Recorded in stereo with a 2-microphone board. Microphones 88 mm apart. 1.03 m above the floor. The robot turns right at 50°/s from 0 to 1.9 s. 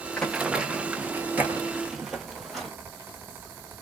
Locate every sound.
0.2 s running footsteps: 15° left (ahead or behind), 1.0 m; by 2.7 s centre (ahead or behind), 1.5 m